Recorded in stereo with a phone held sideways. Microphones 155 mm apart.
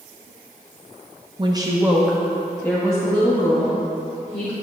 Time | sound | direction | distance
1.4 | a woman speaking | 30° right (ahead or behind) | 0.8 m